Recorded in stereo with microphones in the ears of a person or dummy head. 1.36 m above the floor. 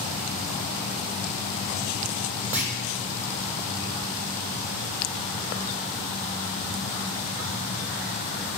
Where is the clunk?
10° right (ahead or behind), 0.9 m.